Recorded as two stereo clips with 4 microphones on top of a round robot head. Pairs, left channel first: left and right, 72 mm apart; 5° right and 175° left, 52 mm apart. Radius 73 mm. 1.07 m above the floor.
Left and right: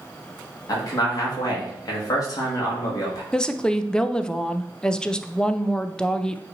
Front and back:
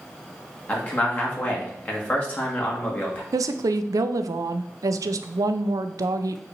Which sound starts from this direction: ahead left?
A man speaking, at 0.7 s.